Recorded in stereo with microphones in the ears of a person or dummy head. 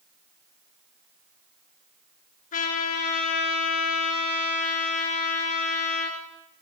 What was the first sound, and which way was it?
A trumpet, 50° left (ahead or behind).